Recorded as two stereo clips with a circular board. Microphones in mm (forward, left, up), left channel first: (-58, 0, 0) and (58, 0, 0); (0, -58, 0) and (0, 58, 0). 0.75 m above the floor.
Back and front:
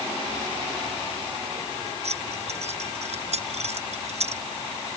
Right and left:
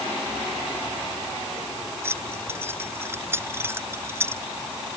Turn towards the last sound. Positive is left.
turn(degrees=20)